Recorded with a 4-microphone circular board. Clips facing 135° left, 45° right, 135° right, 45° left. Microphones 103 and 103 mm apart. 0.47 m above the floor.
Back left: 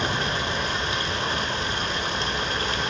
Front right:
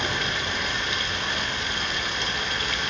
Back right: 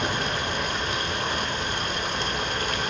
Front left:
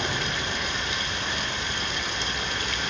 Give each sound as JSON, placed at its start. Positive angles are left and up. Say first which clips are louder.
{"t": 0.0, "sound": "running water", "louder": "back left 2 dB, back right 3 dB", "azimuth_deg": -175, "distance_m": 1.0}